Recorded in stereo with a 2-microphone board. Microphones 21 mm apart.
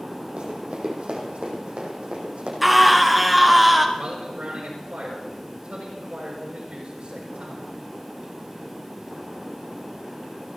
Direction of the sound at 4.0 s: 70° right (ahead or behind).